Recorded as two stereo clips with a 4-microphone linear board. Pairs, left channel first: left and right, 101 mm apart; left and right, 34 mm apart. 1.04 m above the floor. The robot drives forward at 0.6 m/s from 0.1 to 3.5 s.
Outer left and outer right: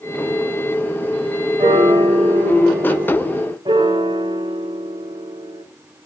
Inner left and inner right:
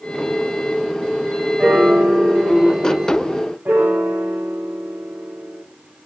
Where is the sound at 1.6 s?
60° right (ahead or behind), 4 m; by 3.5 s 75° right (ahead or behind), 3.5 m.